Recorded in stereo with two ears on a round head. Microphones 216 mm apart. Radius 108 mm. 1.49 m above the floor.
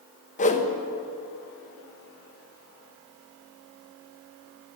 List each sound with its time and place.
0.4 s a whoosh: 30° left (ahead or behind), 0.9 m